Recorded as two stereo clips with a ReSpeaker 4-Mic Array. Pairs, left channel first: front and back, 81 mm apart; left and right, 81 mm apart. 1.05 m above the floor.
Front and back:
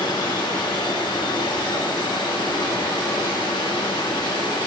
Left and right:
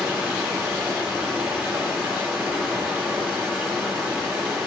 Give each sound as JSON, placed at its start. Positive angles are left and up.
{"t": 0.0, "sound": "running water", "azimuth_deg": -10, "distance_m": 3.0}